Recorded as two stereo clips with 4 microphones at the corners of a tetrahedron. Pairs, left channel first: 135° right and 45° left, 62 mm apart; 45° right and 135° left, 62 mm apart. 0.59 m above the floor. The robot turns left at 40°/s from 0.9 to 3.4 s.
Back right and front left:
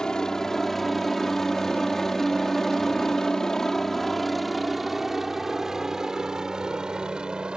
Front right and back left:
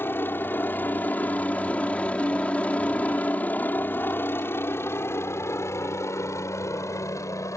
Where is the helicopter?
65° right; by 7.6 s 30° right.